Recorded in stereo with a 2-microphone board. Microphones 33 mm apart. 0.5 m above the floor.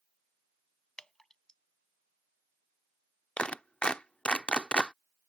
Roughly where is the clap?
Left.